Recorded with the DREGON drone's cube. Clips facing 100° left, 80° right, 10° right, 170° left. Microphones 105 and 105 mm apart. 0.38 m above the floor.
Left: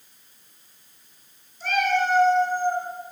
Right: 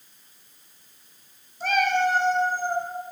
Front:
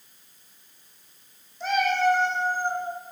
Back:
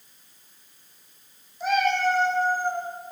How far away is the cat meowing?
About 1.2 m.